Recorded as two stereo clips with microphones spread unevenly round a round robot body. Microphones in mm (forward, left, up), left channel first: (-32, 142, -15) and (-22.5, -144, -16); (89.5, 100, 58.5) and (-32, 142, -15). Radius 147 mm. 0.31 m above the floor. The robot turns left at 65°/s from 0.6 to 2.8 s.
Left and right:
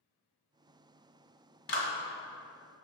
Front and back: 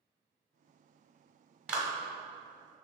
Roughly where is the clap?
Behind left.